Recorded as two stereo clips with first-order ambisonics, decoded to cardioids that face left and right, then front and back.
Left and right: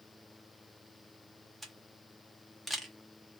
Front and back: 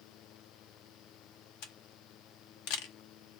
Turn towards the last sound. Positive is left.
turn(degrees=-10)